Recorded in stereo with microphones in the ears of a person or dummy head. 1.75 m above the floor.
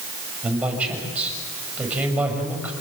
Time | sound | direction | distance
0.4 | a man speaking | 10° right (ahead or behind) | 7.5 m